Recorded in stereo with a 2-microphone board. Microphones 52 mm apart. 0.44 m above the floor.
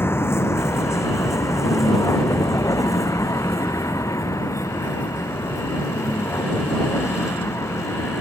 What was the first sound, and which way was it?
A vehicle, 50° left (ahead or behind).